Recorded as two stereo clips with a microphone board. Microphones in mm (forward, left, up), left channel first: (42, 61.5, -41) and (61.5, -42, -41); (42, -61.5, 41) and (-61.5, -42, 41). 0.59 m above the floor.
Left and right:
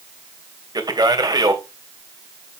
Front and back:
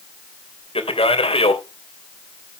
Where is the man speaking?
30° right, 3 m.